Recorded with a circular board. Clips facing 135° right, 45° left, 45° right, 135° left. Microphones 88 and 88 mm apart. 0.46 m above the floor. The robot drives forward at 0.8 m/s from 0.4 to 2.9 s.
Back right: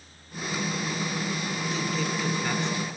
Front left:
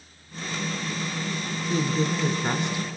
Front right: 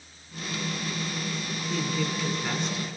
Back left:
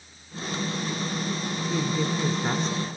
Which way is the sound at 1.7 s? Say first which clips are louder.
Front left 7 dB, back left 2 dB; 65° left.